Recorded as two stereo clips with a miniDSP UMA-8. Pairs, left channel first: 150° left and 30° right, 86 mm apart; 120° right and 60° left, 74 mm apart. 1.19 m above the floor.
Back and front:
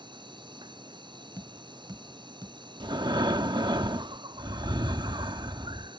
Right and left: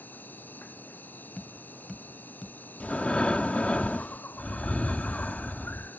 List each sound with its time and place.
0.0 s an insect: 55° right
1.4 s tapping: 45° right
2.8 s breathing: 45° right